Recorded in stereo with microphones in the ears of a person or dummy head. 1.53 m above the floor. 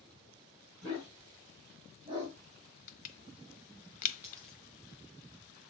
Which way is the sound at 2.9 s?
50° left (ahead or behind).